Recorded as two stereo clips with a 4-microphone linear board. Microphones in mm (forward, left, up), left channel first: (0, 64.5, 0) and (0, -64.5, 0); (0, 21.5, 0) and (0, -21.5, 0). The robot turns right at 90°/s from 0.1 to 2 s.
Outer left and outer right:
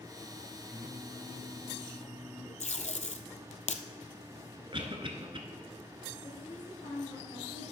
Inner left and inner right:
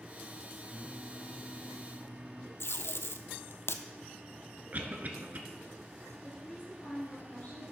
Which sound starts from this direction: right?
A cough, at 4.7 s.